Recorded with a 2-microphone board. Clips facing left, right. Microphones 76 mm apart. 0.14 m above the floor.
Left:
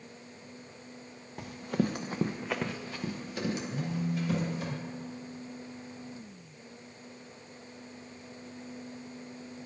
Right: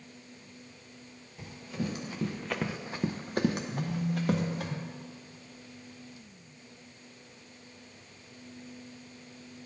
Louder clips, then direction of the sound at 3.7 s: Even; 15° left (ahead or behind).